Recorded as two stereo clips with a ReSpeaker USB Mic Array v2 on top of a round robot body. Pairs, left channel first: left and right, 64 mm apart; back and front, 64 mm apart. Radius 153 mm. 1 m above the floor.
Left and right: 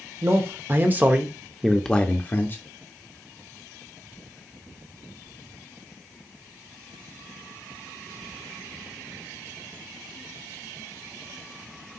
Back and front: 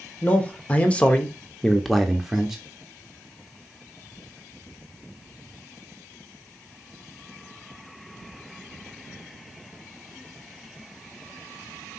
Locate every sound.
0.2 s a man speaking: 120° right, 1.2 m; by 2.6 s 75° left, 0.9 m